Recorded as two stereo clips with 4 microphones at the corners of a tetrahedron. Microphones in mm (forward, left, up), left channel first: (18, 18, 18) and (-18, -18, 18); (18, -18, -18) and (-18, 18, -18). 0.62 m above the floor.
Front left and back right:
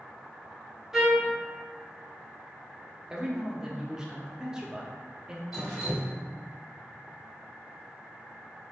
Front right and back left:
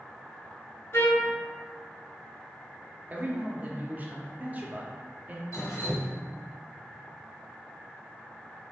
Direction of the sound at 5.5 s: 50° right.